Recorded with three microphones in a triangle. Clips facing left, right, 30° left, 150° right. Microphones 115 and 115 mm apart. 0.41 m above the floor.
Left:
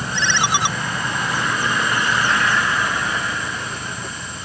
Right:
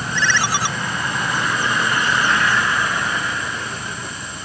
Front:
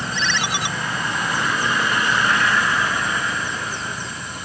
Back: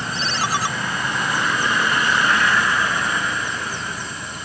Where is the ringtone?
160° left.